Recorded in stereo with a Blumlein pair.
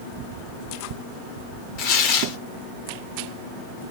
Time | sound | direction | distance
1.8 | tearing paper | 40° left | 0.9 m